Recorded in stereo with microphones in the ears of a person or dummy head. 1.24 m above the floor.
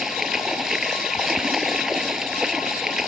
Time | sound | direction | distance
0.0 | running water | centre (ahead or behind) | ?